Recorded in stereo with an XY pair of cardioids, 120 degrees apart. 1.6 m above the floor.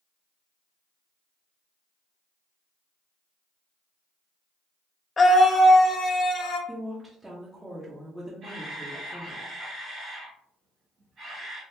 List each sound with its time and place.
5.2 s a scream: 25° left, 0.6 m; by 6.6 s 40° left, 1.5 m
6.7 s a woman speaking: 5° right, 0.9 m
8.4 s a camera shutter: 50° right, 1.9 m